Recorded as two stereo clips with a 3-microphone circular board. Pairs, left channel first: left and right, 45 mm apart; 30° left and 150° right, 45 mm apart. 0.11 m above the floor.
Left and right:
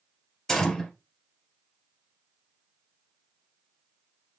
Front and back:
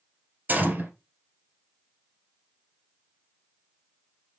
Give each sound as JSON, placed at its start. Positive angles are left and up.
{"t": 0.5, "sound": "a gunshot", "azimuth_deg": 165, "distance_m": 2.5}